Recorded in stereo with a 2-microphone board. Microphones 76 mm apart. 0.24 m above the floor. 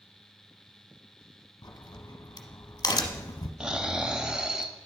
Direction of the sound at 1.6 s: 60° left (ahead or behind).